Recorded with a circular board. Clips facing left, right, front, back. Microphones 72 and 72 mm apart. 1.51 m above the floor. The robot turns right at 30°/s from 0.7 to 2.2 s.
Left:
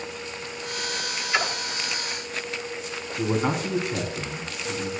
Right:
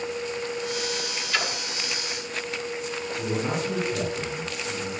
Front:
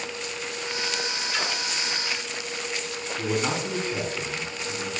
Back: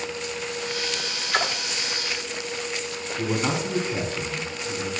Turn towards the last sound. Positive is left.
turn(degrees=100)